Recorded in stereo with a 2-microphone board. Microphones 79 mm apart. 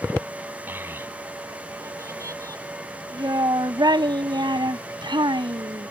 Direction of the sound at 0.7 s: 25° right (ahead or behind).